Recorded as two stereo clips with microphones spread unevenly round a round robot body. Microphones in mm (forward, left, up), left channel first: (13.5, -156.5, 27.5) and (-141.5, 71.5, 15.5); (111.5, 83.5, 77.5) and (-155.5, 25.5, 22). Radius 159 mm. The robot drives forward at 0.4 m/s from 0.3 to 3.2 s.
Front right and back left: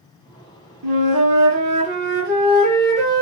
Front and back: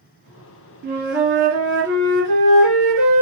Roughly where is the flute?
Behind left.